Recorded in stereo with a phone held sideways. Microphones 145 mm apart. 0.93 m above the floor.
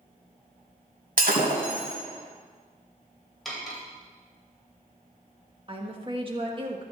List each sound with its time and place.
1.2 s breaking glass: 80° right, 2 m
3.5 s cutlery clinking: centre (ahead or behind), 2.5 m
5.7 s a woman speaking: 35° right (ahead or behind), 1.5 m